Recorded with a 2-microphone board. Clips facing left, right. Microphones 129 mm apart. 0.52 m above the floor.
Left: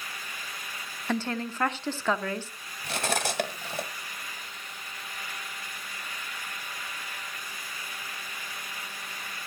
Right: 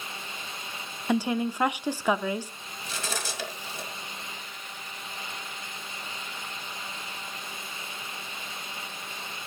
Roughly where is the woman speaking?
Centre.